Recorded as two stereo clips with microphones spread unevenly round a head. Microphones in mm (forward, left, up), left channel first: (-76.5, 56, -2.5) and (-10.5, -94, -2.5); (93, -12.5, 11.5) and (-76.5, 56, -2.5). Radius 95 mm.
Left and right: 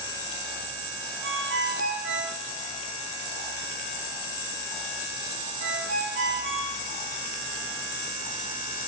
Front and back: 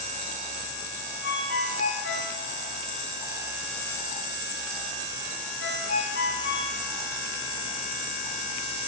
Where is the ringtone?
55° right, 6 m.